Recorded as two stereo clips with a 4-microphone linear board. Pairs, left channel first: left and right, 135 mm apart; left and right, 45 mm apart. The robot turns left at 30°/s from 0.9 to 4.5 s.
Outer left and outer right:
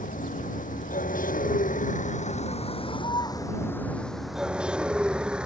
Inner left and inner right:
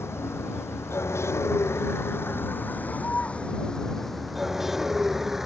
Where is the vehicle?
100° left; by 5.5 s 5° right.